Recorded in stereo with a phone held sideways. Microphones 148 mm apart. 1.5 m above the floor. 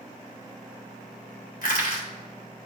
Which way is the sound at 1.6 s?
70° left (ahead or behind).